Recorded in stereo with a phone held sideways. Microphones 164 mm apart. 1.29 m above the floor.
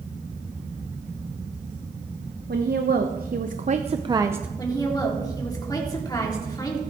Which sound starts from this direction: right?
A woman speaking, at 2.5 s.